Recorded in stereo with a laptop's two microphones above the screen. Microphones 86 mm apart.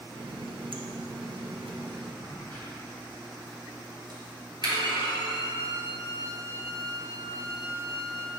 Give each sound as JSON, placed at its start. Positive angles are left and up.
{"t": 0.1, "sound": "a running tap", "side_deg": -85, "distance_m": 0.7}
{"t": 2.2, "sound": "a crack", "side_deg": -50, "distance_m": 1.7}
{"t": 4.6, "sound": "a violin", "side_deg": 60, "distance_m": 1.6}